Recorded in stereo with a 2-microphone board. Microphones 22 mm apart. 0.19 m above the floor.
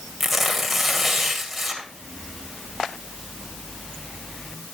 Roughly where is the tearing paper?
Centre.